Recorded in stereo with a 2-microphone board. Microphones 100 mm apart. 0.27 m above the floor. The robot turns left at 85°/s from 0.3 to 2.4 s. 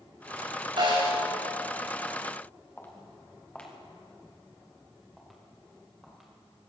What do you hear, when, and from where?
0.8 s a snare drum: 60° right, 6.5 m; by 1.2 s 95° right, 6.5 m
2.8 s footsteps: 20° left (ahead or behind), 3 m; by 6.3 s 5° right (ahead or behind), 6 m